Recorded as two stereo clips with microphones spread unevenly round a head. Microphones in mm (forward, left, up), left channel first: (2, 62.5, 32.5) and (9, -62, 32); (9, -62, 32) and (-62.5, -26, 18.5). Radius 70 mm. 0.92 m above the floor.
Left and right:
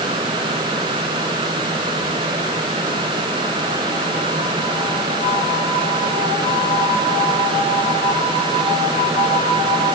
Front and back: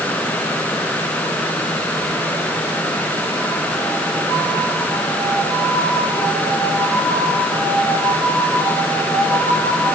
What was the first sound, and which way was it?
Only background noise.